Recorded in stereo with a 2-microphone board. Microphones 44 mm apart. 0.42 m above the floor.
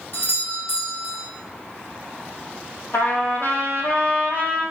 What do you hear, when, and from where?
0.1 s a doorbell: 60° left (ahead or behind), 4 m
2.9 s a trumpet: 70° left (ahead or behind), 3 m